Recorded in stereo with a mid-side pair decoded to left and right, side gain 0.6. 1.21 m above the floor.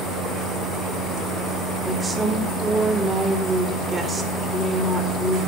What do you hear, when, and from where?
1.9 s a woman speaking: 20° right, 3.5 m